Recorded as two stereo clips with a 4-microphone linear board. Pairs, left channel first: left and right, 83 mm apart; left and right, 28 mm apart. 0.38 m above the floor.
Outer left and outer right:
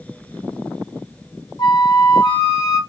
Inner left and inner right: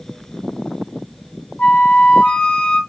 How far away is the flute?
About 1.2 m.